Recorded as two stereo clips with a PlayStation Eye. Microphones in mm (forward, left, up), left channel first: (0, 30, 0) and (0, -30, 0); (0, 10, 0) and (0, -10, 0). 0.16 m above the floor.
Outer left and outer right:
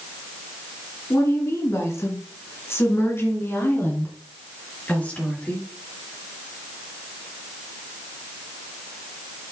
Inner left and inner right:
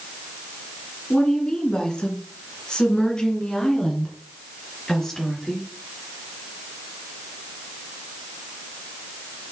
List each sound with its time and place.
1.1 s a woman speaking: 50° left (ahead or behind), 2.5 m; by 5.7 s 20° left (ahead or behind), 3 m